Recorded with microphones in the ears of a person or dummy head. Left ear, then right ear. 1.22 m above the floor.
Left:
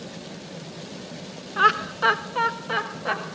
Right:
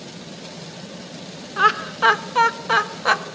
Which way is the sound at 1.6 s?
Centre (ahead or behind).